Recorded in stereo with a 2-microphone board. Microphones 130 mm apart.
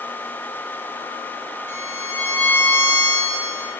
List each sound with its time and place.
1.7 s a violin: 75° right (ahead or behind), 5 m